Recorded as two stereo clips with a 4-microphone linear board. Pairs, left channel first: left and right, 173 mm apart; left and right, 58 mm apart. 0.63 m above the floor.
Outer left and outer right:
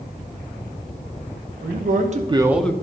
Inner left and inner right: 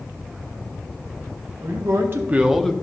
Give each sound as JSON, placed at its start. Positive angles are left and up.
{"t": 1.6, "sound": "a man speaking", "side_deg": -65, "distance_m": 1.1}